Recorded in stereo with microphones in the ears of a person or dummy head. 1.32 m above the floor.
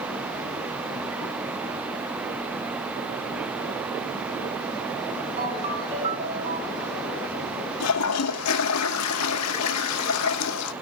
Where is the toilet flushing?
85° left, 1.3 m.